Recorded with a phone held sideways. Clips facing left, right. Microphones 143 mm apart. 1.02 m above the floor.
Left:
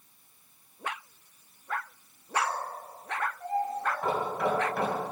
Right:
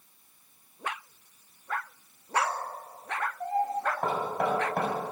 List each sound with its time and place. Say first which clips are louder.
2.3 s a child speaking: right 1 dB; 75° right (ahead or behind), 3.5 m; by 3.9 s 80° right, 4.5 m
4.0 s knocking: left 1 dB; 60° right (ahead or behind), 4.5 m